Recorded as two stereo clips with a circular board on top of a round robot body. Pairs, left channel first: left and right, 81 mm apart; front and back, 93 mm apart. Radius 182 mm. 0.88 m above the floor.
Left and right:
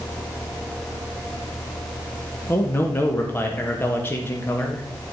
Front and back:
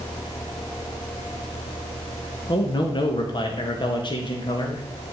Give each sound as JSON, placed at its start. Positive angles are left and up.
{"t": 2.5, "sound": "a man speaking", "azimuth_deg": 30, "distance_m": 1.8}